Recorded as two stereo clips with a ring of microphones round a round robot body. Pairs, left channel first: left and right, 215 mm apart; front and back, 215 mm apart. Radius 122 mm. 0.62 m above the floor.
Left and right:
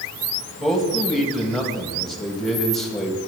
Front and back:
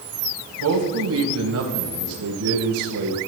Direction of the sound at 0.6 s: Straight behind.